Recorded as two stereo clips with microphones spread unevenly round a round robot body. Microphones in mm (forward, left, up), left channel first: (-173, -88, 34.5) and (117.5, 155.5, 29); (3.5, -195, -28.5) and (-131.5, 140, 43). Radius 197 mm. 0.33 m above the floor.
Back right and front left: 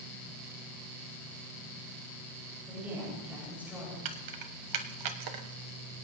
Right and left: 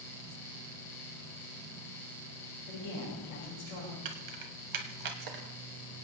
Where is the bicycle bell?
No bicycle bell in this recording.